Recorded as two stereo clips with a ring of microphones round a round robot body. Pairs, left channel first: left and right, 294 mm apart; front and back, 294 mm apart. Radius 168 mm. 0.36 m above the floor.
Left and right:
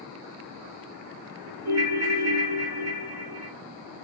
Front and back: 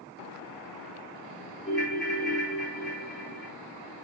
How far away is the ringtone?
About 1.0 m.